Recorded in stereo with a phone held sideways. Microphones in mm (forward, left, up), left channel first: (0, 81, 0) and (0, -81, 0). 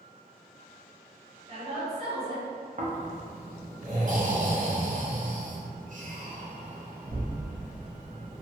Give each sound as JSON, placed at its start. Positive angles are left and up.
{"t": 1.5, "sound": "a woman speaking", "side_deg": -35, "distance_m": 1.0}
{"t": 2.8, "sound": "snoring", "side_deg": -55, "distance_m": 0.6}